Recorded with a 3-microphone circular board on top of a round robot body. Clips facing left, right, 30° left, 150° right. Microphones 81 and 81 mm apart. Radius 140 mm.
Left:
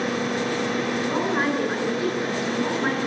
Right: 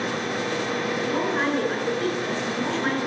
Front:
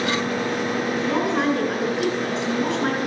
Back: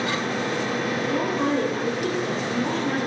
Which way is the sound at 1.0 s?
20° left.